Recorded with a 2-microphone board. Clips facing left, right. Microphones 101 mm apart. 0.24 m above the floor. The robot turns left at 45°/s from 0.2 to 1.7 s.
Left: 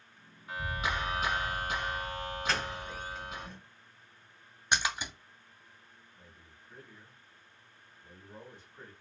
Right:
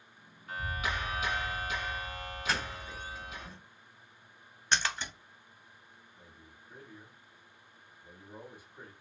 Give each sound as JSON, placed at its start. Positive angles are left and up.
{"t": 0.5, "sound": "a clap", "azimuth_deg": 165, "distance_m": 2.0}
{"t": 2.5, "sound": "a doorbell", "side_deg": -5, "distance_m": 1.4}
{"t": 4.7, "sound": "a splash", "side_deg": 15, "distance_m": 0.6}
{"t": 6.2, "sound": "a man speaking", "side_deg": -10, "distance_m": 1.1}